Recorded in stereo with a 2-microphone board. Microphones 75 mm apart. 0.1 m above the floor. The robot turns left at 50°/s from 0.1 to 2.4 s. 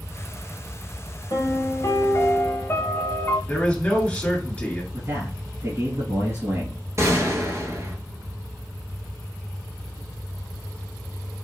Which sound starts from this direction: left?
A piano, at 1.3 s.